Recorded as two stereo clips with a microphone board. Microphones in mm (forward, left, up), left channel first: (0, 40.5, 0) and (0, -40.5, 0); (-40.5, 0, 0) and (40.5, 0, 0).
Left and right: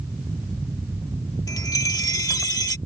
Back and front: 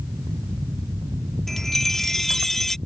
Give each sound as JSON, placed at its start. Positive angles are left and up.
{"t": 1.5, "sound": "a chime", "azimuth_deg": 95}